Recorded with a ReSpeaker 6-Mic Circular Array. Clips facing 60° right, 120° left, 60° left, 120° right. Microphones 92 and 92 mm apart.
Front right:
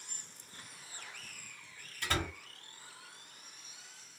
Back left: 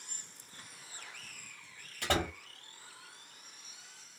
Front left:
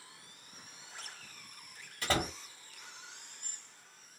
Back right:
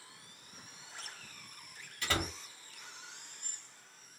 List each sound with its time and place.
2.0 s a door slam: 110° left, 1.3 m